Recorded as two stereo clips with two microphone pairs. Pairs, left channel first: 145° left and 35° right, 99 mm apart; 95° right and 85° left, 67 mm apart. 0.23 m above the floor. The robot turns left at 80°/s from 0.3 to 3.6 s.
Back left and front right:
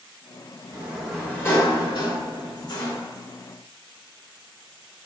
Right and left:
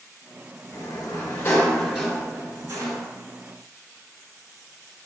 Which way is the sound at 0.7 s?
95° right.